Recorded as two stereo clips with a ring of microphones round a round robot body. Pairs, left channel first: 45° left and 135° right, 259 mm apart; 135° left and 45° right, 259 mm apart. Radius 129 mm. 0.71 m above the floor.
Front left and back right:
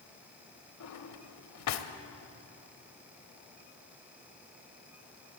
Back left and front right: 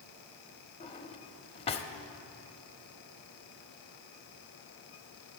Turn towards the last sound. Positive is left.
turn(degrees=65)